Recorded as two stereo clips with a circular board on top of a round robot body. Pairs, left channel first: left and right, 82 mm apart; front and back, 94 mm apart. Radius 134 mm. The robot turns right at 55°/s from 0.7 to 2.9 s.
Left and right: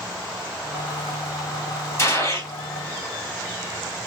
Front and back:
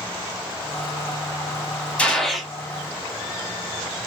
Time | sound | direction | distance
2.0 | a gunshot | 70° left | 1.3 m